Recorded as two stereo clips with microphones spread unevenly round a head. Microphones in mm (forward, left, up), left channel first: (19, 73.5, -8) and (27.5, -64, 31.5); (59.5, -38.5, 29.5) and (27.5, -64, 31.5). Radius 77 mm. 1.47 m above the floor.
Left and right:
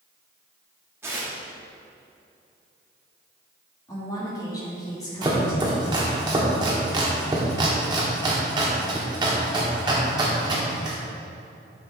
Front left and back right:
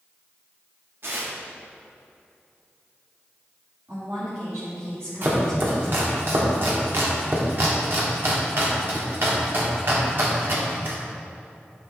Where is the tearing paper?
145° right, 1.3 m.